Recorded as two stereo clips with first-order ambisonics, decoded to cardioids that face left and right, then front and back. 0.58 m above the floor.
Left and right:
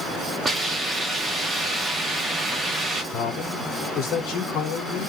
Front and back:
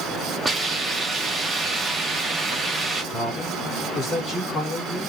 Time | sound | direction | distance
0.5 | a hiss | 120° right | 0.6 m
3.1 | a man speaking | 60° left | 1.3 m